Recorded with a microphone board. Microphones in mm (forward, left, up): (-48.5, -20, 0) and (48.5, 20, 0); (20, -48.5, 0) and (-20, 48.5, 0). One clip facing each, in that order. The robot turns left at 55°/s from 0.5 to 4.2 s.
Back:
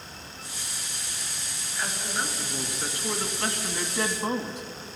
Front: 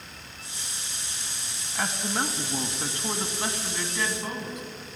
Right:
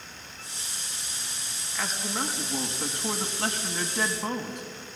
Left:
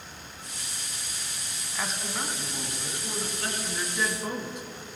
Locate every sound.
1.8 s a man speaking: 35° left, 2.5 m; by 4.6 s 100° right, 2.5 m